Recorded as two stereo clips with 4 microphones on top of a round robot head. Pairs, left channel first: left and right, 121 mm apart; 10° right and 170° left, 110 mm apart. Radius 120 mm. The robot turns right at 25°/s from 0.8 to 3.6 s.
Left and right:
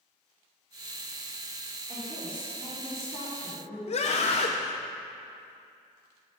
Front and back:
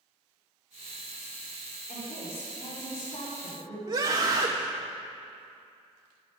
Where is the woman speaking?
25° right, 3.5 m; by 3.8 s 15° left, 3.5 m.